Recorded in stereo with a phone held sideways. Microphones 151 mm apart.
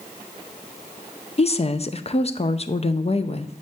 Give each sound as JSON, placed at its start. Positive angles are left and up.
{"t": 1.4, "sound": "a woman speaking", "side_deg": 40, "distance_m": 0.5}